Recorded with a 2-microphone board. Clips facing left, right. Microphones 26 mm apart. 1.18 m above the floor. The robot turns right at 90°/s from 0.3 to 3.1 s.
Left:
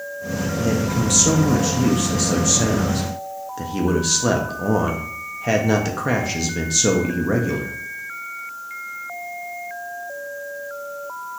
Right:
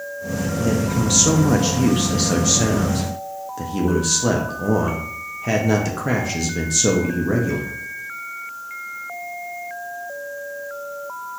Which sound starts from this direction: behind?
A man speaking, at 0.6 s.